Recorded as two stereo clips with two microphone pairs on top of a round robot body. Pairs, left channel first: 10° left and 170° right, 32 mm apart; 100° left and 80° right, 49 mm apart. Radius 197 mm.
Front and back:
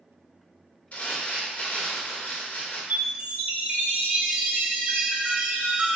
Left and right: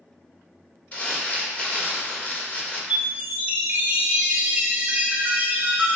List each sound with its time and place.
0.9 s crumpling: 45° left, 1.4 m
2.9 s a chime: 135° right, 0.5 m